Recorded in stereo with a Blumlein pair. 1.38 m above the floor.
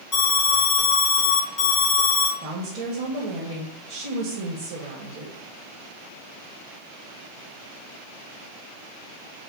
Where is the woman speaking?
45° right, 1.6 m.